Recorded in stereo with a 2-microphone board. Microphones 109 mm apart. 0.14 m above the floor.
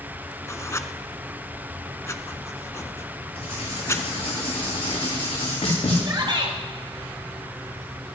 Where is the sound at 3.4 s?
80° left, 8.5 m.